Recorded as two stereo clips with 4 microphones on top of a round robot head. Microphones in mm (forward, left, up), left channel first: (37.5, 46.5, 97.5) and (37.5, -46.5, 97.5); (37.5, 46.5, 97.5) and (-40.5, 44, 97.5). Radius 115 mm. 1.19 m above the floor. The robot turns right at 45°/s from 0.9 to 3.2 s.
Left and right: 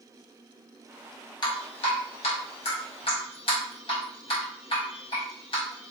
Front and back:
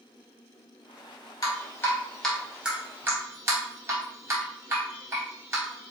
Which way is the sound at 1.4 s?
45° left.